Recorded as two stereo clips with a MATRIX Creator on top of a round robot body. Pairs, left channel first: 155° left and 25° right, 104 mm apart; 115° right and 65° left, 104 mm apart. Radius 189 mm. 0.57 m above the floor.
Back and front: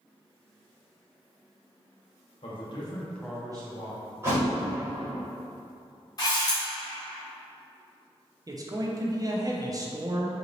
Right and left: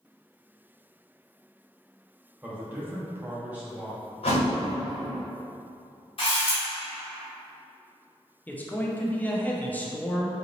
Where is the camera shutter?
145° right, 0.8 m.